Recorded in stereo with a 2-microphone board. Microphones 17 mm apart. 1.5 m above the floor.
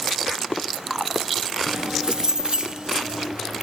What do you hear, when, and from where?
1.7 s keys jangling: 50° right (ahead or behind); by 3.4 s 65° right (ahead or behind)